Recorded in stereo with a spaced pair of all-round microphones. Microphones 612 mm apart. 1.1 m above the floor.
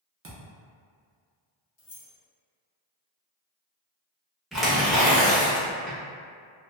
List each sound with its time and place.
0.2 s a thud: 25° right (ahead or behind), 0.5 m
1.8 s keys jangling: 25° left (ahead or behind), 0.8 m
4.5 s tearing paper: centre (ahead or behind), 0.8 m